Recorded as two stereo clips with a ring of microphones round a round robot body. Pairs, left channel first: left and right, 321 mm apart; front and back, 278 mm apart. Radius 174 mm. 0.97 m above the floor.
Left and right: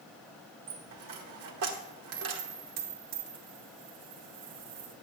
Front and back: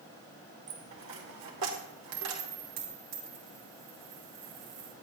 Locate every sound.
0.7 s a dropped coin: 135° right, 1.3 m